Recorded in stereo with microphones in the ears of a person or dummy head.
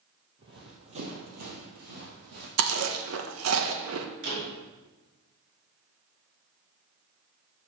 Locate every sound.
0.4 s running footsteps: 25° right (ahead or behind), 2 m; by 2.5 s 60° right (ahead or behind), 2.5 m
2.6 s chewing: 75° right (ahead or behind), 1.2 m
4.2 s a door slam: 70° right (ahead or behind), 5 m